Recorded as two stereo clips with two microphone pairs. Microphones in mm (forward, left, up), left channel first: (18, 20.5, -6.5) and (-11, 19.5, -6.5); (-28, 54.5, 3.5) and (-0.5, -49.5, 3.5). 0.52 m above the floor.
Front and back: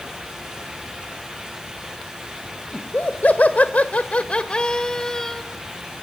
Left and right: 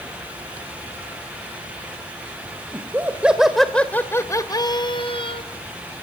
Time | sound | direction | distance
2.7 | laughter | 10° right | 2 m